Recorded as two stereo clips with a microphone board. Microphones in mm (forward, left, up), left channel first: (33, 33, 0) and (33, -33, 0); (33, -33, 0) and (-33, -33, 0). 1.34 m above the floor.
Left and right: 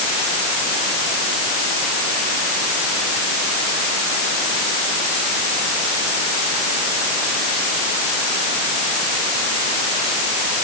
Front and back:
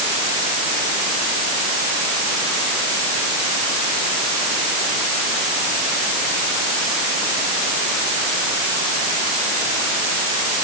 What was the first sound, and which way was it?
Only background noise.